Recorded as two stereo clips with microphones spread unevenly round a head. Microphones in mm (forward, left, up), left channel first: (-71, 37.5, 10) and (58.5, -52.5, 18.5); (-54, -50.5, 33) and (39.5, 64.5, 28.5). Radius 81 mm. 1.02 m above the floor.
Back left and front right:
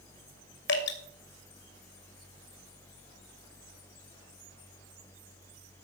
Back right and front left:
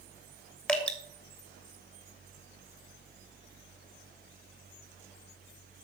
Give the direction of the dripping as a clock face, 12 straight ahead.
7 o'clock.